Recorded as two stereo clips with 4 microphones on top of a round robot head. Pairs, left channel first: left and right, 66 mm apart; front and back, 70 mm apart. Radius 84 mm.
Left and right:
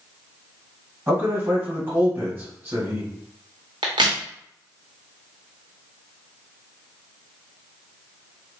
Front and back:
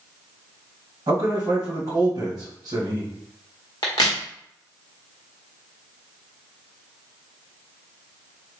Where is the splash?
No splash in this recording.